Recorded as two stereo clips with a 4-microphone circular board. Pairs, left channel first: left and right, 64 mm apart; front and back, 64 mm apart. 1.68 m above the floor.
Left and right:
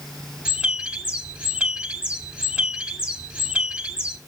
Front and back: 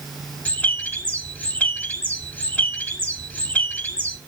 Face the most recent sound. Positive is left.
turn(degrees=-35)